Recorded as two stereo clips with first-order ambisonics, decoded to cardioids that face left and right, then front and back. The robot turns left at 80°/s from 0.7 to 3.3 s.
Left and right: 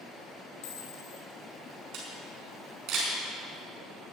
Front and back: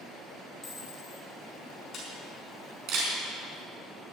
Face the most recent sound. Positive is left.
turn(degrees=-170)